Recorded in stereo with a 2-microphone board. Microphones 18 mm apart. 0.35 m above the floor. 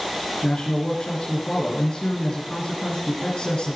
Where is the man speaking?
70° left (ahead or behind), 4 m.